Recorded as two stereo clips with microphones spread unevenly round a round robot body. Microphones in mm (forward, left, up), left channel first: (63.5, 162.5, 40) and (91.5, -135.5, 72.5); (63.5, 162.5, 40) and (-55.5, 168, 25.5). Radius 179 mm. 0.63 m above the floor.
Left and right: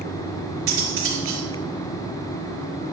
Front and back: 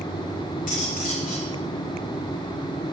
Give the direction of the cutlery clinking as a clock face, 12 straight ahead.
1 o'clock.